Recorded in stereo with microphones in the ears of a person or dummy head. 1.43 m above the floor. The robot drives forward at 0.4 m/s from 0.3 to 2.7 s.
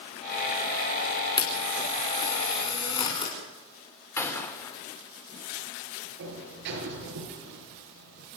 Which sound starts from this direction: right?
A sliding door, at 6.2 s.